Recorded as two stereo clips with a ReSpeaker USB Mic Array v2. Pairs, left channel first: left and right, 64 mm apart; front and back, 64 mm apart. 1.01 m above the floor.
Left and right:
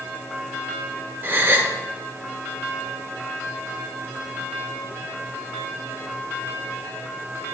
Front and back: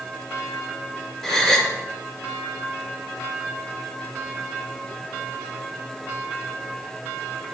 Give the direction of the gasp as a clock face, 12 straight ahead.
3 o'clock.